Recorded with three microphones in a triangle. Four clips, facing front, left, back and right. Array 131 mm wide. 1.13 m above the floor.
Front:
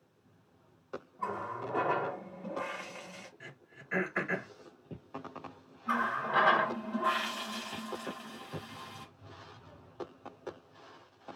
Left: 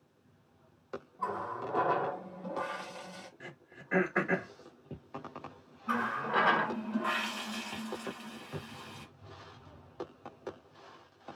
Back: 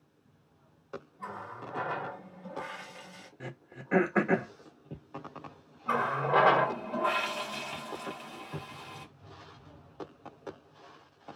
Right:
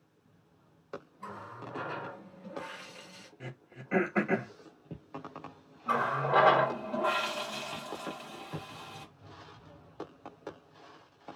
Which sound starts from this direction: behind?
Throat clearing, at 3.4 s.